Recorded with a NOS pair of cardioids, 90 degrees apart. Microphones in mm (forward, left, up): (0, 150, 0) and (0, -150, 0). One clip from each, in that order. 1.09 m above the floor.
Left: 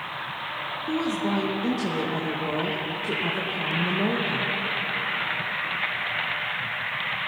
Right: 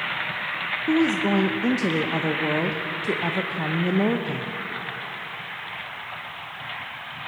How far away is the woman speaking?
About 0.7 m.